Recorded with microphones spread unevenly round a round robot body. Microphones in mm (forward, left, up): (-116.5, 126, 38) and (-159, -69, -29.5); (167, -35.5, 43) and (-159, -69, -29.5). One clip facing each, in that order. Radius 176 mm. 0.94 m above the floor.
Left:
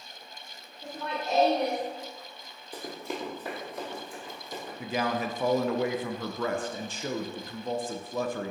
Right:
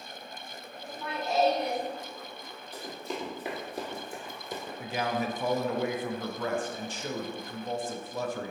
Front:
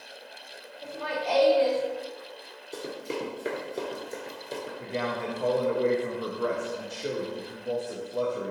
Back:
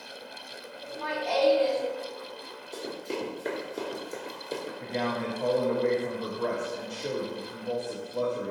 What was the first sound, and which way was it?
Laughter, 30° left.